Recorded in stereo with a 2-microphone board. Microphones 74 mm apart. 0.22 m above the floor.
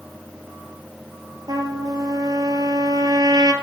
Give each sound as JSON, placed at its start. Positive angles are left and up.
{"t": 1.5, "sound": "a trumpet", "side_deg": -70, "distance_m": 0.7}